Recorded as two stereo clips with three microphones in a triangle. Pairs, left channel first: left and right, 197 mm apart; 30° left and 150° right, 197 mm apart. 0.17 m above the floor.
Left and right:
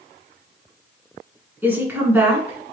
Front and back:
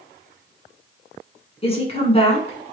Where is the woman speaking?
15° right, 1.3 m.